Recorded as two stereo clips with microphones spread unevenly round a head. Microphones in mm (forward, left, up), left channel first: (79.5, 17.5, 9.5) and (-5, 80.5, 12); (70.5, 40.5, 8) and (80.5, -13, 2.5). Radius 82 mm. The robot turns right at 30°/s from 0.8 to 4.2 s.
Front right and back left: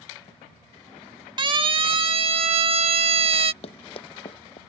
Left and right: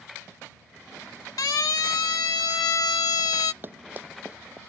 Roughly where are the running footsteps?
Ahead right.